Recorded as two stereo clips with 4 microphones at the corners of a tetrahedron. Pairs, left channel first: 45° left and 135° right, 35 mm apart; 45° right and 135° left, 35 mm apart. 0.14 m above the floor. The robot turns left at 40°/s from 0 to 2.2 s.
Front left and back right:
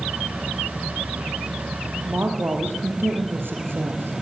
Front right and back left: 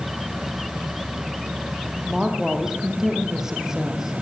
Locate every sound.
2.0 s a woman speaking: 140° right, 4.5 m; by 4.2 s 150° right, 4.5 m